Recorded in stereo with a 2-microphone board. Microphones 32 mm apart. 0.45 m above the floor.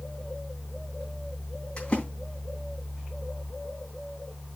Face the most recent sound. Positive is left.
turn(degrees=35)  # may be behind; listen again after turning